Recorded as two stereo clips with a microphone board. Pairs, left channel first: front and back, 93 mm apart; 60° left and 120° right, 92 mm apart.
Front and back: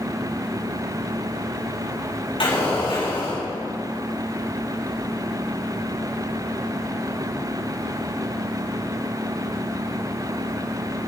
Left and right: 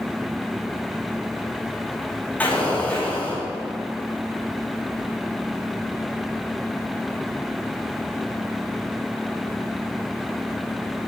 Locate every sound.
2.4 s an explosion: 10° right, 5.5 m